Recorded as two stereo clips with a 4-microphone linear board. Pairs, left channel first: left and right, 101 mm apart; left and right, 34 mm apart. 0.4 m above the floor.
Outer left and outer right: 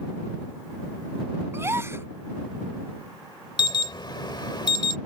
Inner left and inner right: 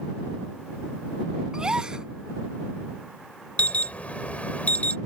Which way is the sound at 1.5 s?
25° right (ahead or behind).